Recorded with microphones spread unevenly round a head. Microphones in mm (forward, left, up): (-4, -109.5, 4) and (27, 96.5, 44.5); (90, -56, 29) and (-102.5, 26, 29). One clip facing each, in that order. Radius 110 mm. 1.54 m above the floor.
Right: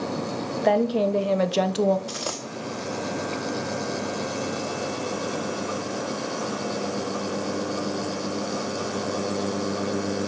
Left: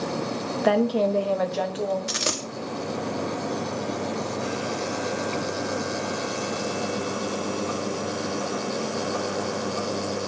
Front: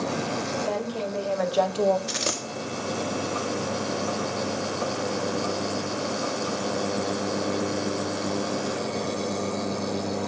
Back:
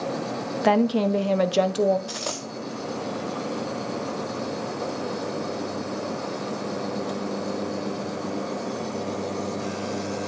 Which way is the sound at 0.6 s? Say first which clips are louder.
Even, back 8 dB; 165° left.